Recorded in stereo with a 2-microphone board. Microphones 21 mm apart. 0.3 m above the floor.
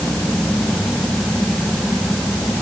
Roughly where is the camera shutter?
I don't hear a camera shutter.